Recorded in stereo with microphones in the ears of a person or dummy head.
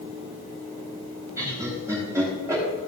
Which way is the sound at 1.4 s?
15° right (ahead or behind).